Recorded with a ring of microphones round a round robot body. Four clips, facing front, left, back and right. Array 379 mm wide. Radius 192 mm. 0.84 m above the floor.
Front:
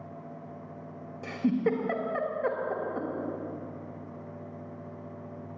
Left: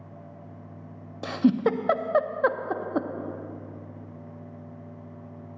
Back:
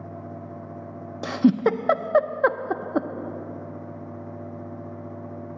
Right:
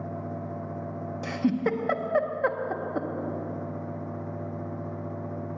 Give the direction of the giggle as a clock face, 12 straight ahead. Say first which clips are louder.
Left 4 dB, back 8 dB; 7 o'clock.